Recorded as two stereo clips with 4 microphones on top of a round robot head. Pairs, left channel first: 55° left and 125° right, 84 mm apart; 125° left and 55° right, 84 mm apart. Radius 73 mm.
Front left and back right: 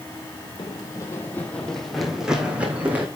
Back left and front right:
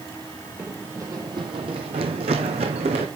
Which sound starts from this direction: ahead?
Running footsteps, at 0.6 s.